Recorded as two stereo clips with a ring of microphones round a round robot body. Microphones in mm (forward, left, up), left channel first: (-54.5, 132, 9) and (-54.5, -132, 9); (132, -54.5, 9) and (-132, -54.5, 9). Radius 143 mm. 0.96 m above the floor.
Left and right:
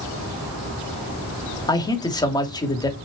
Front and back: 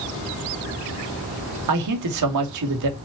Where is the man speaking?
165° left, 2.5 m.